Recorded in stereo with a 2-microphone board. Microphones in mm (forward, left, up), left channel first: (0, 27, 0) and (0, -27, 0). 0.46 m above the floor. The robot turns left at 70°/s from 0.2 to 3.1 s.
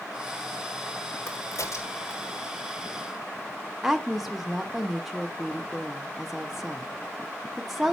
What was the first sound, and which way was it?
A crack, 50° left (ahead or behind).